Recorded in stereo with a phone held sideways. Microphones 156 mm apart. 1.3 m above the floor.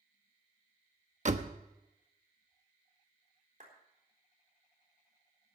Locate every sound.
1.2 s a door slam: 50° right (ahead or behind), 1.0 m
3.6 s a clap: 55° right (ahead or behind), 4 m